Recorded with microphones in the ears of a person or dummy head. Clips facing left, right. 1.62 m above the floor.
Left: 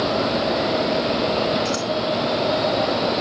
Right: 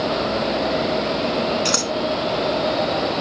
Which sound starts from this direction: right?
Scissors, at 1.6 s.